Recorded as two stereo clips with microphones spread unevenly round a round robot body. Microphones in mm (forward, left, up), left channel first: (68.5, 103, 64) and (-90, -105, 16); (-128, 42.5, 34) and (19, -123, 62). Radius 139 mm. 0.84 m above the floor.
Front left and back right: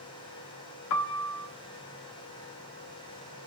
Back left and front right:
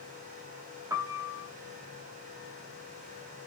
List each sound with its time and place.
0.9 s a piano: 30° left, 0.6 m